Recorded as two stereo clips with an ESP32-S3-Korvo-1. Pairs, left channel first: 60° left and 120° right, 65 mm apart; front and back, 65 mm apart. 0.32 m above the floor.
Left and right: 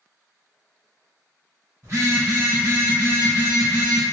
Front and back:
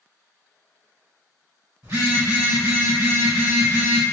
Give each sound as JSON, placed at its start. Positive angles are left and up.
{"t": 1.8, "sound": "a phone buzzing", "azimuth_deg": -165, "distance_m": 2.0}